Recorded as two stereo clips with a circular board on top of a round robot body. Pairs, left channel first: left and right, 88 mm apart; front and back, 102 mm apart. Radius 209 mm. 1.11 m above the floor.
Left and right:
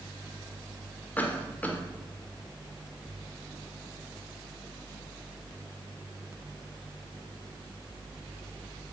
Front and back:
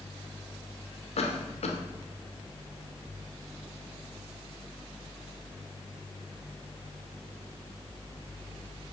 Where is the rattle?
I don't hear a rattle.